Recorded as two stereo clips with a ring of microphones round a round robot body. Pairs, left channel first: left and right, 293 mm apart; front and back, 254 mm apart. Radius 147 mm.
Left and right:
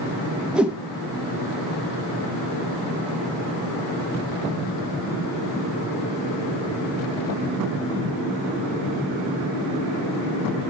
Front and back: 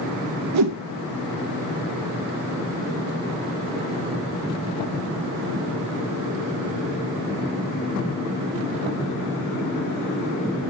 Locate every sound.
0.5 s a whoosh: 175° right, 0.6 m